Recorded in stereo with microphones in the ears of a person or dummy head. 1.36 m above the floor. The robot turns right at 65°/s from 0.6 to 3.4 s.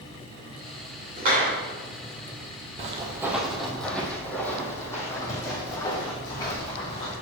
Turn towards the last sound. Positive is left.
turn(degrees=25)  # may be behind; listen again after turning